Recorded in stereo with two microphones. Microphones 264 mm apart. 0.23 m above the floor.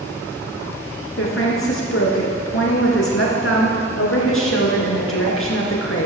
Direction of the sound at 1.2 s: 55° left (ahead or behind).